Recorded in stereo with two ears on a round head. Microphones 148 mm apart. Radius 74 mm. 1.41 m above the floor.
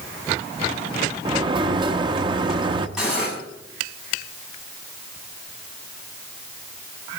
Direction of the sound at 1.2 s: 30° right (ahead or behind).